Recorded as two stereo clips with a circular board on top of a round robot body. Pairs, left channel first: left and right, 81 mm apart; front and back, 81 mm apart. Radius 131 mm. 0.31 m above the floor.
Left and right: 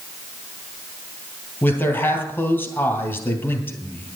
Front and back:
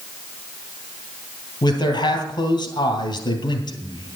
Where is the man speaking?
30° left, 3 m.